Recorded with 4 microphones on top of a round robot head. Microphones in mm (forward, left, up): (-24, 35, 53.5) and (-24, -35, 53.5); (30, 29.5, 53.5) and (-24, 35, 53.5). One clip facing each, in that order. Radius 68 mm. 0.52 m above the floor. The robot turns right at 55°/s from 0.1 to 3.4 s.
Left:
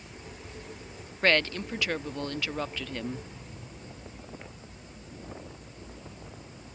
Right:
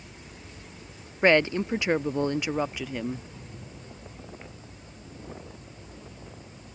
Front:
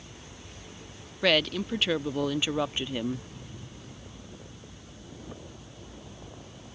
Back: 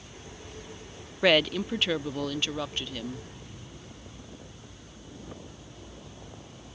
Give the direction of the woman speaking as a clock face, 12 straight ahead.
4 o'clock.